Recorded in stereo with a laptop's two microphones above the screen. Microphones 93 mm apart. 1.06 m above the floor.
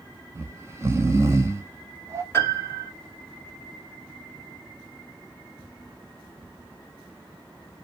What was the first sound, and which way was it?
Snoring, 30° right (ahead or behind).